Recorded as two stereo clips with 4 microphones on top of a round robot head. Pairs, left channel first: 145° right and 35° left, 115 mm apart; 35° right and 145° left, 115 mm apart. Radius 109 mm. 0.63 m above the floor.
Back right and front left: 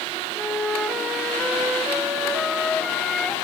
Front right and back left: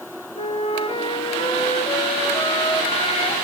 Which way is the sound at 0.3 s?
65° right.